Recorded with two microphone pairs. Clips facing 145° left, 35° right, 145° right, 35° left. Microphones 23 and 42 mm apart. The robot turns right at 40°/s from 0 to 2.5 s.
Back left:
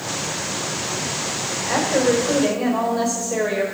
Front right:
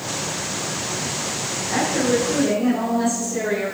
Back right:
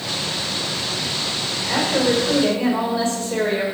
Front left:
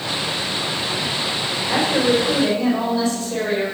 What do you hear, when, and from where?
1.6 s a woman speaking: 135° left, 4.5 m; by 3.6 s 170° left, 4.5 m